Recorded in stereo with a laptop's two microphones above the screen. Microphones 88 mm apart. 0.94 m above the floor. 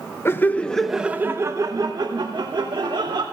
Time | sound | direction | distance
0.2 | laughter | 30° left (ahead or behind) | 0.7 m